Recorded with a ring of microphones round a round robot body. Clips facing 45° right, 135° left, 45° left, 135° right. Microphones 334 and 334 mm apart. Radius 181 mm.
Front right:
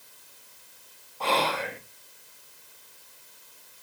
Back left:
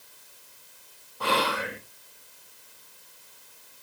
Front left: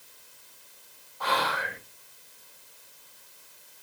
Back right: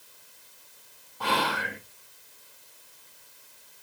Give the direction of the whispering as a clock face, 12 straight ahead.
5 o'clock.